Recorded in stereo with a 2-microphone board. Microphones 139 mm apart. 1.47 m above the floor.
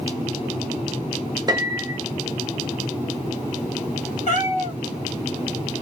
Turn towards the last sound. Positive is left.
turn(degrees=60)  # may be behind; listen again after turning